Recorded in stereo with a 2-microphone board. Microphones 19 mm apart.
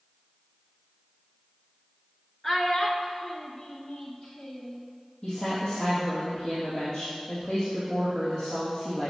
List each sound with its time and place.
2.4 s a child speaking: 20° left (ahead or behind), 0.9 m; by 4.8 s 40° left (ahead or behind), 2 m
5.2 s a woman speaking: 25° left (ahead or behind), 3 m